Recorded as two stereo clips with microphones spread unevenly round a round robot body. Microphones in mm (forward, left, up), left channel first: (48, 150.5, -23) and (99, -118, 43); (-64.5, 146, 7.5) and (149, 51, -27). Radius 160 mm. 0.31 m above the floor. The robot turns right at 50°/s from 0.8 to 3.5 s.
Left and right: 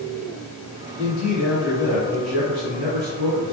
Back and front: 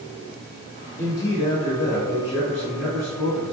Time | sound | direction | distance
1.0 | a man speaking | 120° left | 1.6 m